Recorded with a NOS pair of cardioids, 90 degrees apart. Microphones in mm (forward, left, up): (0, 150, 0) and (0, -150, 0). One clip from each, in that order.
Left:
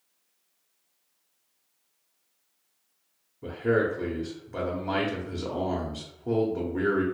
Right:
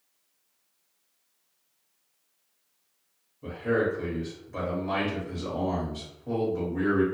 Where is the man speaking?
35° left, 0.8 m.